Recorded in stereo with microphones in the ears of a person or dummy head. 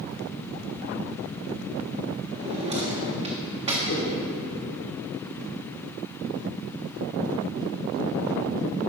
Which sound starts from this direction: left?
A whoosh, at 3.9 s.